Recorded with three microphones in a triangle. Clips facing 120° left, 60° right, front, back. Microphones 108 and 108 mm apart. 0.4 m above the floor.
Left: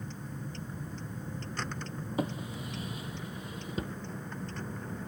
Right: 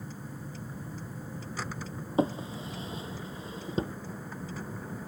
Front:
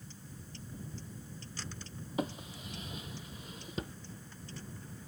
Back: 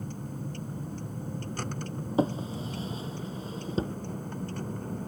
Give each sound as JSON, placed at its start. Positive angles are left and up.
{"t": 0.0, "sound": "a vehicle", "azimuth_deg": -145}
{"t": 2.2, "sound": "a drawer", "azimuth_deg": -120}